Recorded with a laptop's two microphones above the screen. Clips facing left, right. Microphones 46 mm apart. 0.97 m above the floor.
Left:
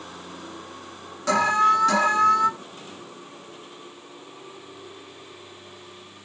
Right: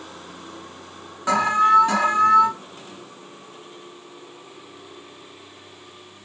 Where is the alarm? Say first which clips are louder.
Right 2 dB; 20° right (ahead or behind), 0.8 m.